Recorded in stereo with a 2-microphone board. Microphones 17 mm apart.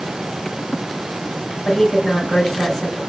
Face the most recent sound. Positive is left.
turn(degrees=40)  # may be behind; listen again after turning